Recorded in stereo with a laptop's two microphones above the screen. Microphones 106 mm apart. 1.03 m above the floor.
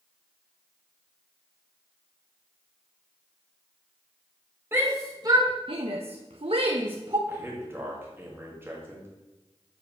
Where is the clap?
No clap in this recording.